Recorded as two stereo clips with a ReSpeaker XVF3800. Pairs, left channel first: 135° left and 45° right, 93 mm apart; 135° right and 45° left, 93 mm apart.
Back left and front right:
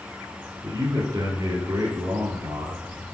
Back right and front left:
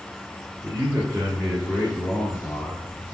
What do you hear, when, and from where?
0.6 s a man speaking: 15° right, 1.9 m